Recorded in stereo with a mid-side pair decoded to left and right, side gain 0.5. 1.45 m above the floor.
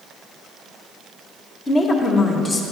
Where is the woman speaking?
35° left, 1.5 m.